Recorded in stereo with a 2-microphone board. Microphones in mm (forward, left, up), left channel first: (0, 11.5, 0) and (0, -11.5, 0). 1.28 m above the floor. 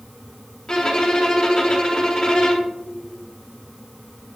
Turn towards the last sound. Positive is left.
turn(degrees=30)  # may be behind; listen again after turning